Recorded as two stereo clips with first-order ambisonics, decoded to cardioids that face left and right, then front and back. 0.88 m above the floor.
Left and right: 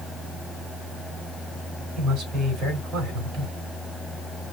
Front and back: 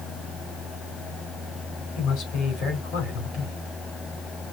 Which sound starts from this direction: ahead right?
A man speaking, at 2.0 s.